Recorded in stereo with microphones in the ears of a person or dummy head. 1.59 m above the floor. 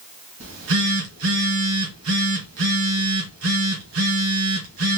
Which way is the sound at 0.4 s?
70° right (ahead or behind).